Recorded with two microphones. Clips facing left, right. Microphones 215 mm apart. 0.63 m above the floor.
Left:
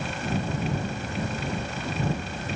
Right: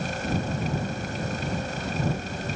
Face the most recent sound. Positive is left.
No sound to turn to.